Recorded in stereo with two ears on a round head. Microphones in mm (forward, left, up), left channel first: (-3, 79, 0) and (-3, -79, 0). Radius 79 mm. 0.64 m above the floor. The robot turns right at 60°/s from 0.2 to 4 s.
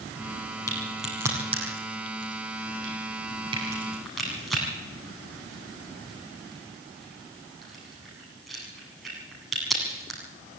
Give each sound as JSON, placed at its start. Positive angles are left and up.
{"t": 0.7, "sound": "a crack", "side_deg": 20, "distance_m": 9.0}